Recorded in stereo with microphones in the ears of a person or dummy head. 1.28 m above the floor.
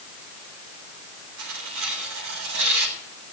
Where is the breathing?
No breathing in this recording.